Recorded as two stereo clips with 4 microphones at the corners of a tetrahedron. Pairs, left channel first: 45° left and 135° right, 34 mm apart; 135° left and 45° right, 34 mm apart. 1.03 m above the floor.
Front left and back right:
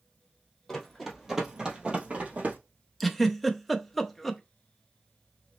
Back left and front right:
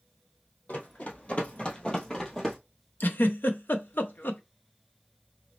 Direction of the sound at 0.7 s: 125° left.